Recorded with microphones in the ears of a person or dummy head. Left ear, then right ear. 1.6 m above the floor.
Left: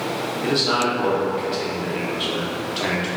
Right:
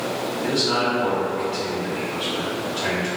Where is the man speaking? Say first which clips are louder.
Left 2 dB; 35° left (ahead or behind), 0.7 m.